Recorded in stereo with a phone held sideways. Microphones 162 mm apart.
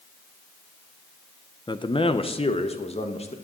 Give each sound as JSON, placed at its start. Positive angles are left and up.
{"t": 1.7, "sound": "a man speaking", "side_deg": 25, "distance_m": 0.7}